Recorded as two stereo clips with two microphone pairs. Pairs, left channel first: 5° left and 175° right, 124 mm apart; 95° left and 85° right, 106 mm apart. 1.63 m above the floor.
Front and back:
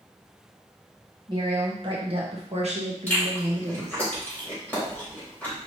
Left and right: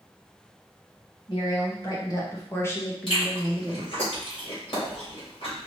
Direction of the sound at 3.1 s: 85° left.